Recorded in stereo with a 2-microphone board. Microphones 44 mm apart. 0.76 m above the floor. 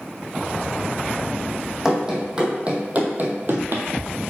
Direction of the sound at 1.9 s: 10° right (ahead or behind).